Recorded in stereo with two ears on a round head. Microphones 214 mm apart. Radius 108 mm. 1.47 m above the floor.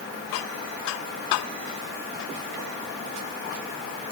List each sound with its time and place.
Only background noise.